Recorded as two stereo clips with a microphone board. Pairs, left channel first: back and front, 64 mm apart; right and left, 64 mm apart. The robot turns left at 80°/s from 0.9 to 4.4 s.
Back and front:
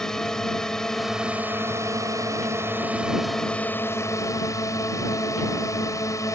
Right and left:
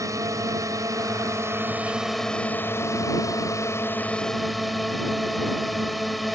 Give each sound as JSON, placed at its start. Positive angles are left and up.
{"t": 0.0, "sound": "a drone", "azimuth_deg": 100}